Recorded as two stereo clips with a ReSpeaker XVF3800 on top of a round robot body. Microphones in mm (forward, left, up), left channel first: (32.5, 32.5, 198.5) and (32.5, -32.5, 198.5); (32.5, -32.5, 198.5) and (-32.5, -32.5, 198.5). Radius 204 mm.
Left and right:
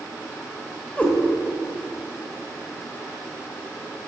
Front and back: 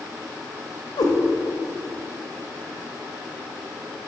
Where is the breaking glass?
No breaking glass in this recording.